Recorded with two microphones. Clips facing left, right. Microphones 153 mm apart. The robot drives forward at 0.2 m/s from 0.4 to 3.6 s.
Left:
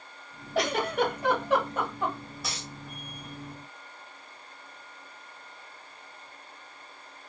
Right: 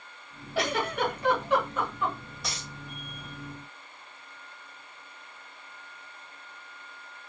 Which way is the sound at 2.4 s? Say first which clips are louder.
Right 1 dB; centre (ahead or behind).